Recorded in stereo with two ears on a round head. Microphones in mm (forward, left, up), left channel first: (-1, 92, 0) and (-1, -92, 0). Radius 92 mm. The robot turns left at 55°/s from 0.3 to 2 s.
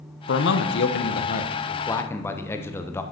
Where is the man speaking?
105° left, 0.9 m; by 3.0 s 15° left, 0.9 m.